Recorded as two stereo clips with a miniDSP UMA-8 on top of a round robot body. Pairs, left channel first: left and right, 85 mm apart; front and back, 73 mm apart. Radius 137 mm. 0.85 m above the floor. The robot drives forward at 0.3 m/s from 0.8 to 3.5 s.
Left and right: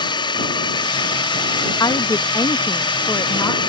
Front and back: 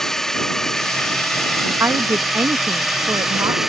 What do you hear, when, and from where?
0.0 s a drone: 80° left; by 3.7 s 95° left
1.8 s a woman speaking: 125° left; by 3.6 s 140° left